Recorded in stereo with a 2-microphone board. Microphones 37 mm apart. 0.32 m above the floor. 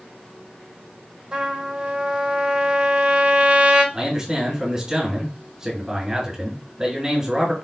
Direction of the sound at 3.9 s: 20° right (ahead or behind).